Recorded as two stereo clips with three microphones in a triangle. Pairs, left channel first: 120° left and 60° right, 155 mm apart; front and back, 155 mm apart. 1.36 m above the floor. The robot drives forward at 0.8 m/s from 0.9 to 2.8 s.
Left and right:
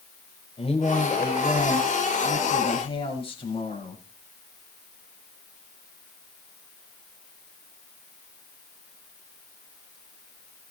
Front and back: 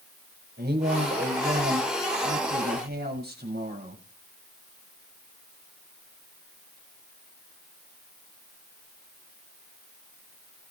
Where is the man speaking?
175° left, 5 m.